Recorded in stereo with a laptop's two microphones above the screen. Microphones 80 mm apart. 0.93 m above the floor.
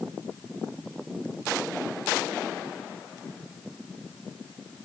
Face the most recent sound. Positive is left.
No sound to turn to.